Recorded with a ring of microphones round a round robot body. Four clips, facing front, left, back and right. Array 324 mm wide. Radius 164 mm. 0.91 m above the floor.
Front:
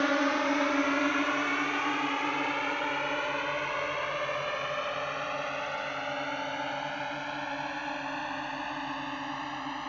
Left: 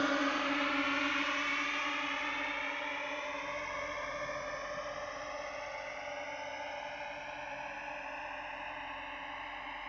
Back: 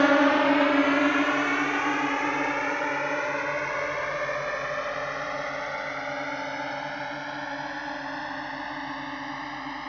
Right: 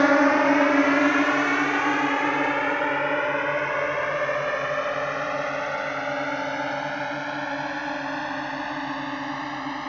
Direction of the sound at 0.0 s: 125° right.